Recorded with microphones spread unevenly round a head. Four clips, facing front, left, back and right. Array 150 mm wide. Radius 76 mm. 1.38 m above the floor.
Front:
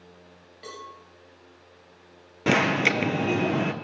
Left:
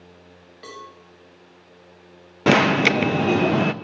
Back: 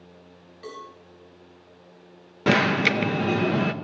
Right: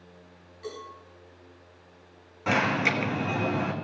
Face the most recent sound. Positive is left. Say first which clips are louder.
# left 9 dB, back 2 dB
turn(degrees=95)